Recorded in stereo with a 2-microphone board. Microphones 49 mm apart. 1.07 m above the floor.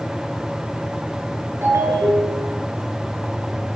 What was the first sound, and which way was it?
A ringtone, 60° right (ahead or behind).